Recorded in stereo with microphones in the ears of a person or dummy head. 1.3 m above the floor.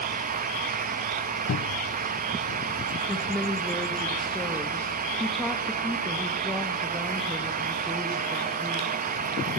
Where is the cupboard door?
65° left (ahead or behind), 0.5 m.